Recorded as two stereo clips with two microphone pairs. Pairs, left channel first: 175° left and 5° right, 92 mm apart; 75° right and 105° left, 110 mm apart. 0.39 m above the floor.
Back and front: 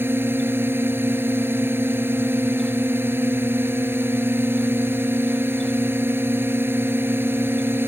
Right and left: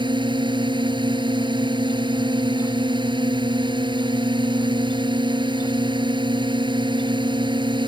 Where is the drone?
60° left.